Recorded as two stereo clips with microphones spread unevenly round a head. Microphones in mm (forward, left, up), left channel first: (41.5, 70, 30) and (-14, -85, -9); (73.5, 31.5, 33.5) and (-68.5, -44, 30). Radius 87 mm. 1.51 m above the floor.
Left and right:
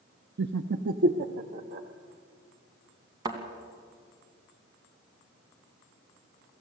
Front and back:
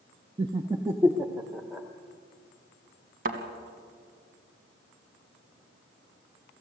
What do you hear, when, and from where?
0.4 s laughter: 95° right, 0.7 m; by 1.9 s 65° right, 1.3 m
3.2 s a thud: 175° left, 2 m